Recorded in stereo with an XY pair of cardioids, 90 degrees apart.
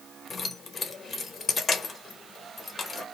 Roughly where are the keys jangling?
Ahead left.